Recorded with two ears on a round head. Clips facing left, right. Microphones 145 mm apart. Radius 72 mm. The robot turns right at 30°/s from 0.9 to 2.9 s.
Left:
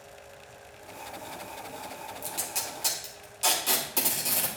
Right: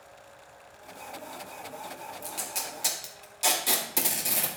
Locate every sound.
2.2 s tape being pulled: 10° left (ahead or behind), 1.8 m; by 4.5 s 10° right (ahead or behind), 1.8 m